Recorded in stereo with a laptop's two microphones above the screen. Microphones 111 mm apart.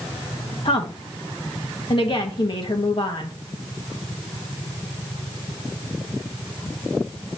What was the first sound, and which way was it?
A woman speaking, 50° left (ahead or behind).